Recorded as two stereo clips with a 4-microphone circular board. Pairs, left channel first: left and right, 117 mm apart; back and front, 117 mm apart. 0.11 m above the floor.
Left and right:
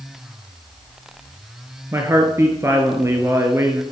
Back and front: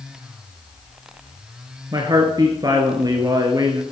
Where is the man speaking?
35° right, 1.5 m.